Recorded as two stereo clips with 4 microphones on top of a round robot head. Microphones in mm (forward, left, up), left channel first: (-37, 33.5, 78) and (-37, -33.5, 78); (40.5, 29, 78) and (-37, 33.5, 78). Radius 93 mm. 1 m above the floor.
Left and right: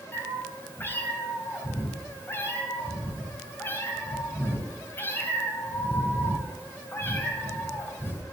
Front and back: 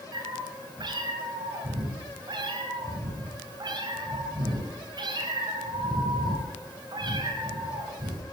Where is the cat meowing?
150° left, 4 m.